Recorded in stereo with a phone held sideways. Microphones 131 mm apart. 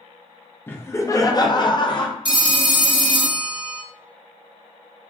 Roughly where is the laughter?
Centre.